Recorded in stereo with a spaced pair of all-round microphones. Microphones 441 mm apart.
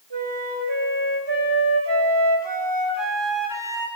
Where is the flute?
70° right (ahead or behind), 5 m.